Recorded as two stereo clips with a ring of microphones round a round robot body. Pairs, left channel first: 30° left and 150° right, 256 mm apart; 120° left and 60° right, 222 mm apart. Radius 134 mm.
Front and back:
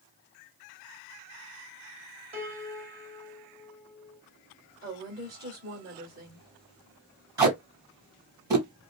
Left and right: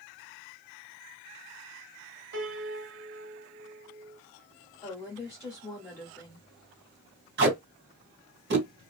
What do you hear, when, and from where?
2.3 s a piano: 90° right, 1.6 m
4.8 s a woman speaking: 170° right, 1.3 m
7.4 s tape being pulled: 75° right, 2 m